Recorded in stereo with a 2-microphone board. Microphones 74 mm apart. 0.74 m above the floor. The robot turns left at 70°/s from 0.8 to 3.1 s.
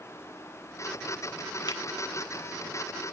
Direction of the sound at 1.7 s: 70° left (ahead or behind).